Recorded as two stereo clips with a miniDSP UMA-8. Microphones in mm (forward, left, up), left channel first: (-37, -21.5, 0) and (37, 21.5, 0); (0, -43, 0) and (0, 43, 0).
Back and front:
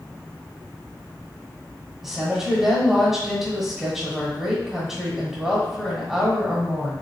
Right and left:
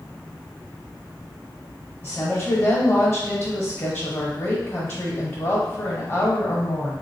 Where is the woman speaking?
45° right, 1.1 m.